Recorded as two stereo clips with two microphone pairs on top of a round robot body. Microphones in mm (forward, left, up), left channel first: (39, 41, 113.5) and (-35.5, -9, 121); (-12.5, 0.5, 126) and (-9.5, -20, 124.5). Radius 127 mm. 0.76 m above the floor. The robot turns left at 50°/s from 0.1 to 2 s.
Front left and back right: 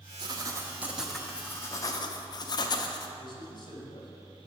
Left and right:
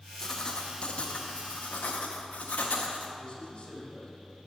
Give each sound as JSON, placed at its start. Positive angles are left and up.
{"t": 0.2, "sound": "writing", "azimuth_deg": 170, "distance_m": 0.6}
{"t": 3.2, "sound": "a man speaking", "azimuth_deg": 70, "distance_m": 2.5}